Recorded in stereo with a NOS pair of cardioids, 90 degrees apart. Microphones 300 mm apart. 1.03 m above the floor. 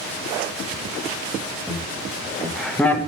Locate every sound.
1.7 s laughter: 10° right, 1.3 m; by 3.1 s 15° left, 0.7 m